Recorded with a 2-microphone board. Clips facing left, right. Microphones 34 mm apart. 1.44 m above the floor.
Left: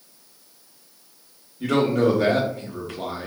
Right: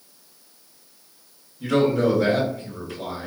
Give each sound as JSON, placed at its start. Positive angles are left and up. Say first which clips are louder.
{"t": 1.6, "sound": "a man speaking", "louder": "even", "side_deg": 75, "distance_m": 1.0}